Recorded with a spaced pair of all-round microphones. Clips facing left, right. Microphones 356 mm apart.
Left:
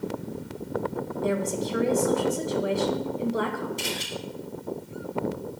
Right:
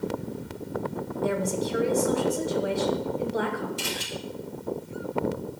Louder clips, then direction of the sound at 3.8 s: Left 1 dB; 15° right (ahead or behind).